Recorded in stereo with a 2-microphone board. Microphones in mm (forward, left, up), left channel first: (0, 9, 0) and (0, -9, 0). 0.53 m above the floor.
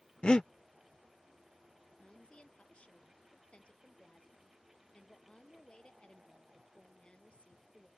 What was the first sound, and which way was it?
Breathing, 65° left (ahead or behind).